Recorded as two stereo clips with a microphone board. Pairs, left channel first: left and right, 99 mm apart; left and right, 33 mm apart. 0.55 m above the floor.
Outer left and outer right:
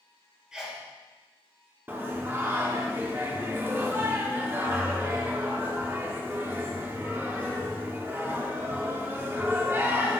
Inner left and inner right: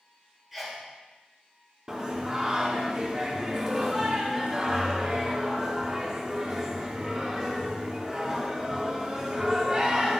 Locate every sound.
0.5 s a sneeze: 5° right (ahead or behind), 1.5 m
1.9 s singing: 20° right (ahead or behind), 0.7 m